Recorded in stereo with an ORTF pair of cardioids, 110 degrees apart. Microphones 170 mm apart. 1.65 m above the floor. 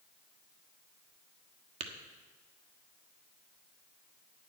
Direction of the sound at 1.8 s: 40° right.